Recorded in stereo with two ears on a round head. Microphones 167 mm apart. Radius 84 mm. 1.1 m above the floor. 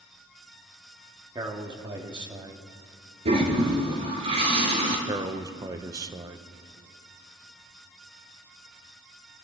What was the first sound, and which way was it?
A man speaking, 25° right (ahead or behind).